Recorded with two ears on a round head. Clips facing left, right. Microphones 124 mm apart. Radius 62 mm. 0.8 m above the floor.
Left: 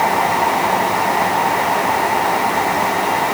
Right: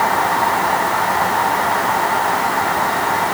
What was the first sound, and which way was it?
Only background noise.